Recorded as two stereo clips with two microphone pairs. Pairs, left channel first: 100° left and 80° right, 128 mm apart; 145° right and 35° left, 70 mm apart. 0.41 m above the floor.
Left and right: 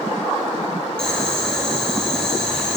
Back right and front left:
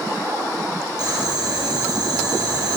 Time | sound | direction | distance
1.0 | boiling | 20° left | 4 m